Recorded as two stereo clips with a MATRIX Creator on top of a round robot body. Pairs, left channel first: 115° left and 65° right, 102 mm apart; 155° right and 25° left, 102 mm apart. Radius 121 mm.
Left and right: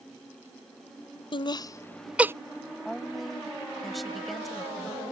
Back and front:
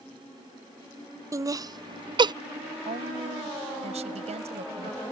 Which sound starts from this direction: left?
Laughter, at 1.3 s.